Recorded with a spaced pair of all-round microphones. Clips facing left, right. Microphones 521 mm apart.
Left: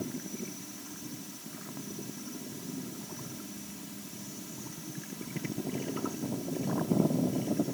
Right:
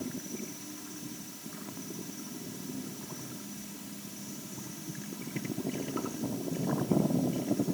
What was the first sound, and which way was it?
Only background noise.